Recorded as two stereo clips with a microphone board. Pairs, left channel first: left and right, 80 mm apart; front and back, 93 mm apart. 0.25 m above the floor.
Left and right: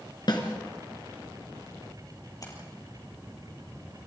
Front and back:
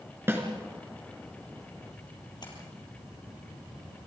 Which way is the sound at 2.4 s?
40° left.